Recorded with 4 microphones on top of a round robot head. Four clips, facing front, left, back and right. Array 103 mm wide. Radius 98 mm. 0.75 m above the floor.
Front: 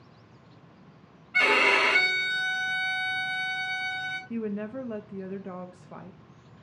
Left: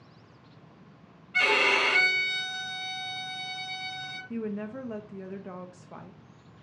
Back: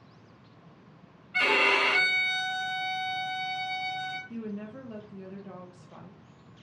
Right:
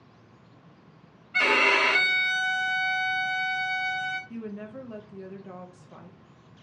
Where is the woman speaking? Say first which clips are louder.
Left 3 dB, front 6 dB; 30° left, 0.6 m.